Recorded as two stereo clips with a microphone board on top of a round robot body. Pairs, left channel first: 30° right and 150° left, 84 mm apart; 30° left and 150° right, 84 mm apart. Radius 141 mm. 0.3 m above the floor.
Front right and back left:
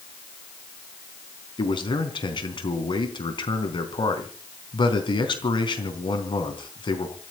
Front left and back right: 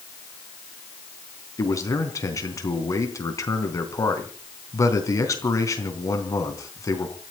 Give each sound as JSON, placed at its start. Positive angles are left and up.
{"t": 1.6, "sound": "a man speaking", "azimuth_deg": -15, "distance_m": 3.5}